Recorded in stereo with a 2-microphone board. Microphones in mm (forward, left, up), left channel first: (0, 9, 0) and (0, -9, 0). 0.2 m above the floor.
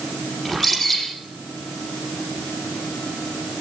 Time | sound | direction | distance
0.5 | a bird | 10° left (ahead or behind) | 8 m